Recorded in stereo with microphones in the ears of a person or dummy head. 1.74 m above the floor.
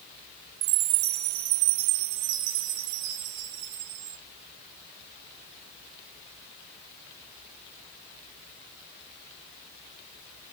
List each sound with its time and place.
0.6 s a chime: 55° right (ahead or behind), 0.7 m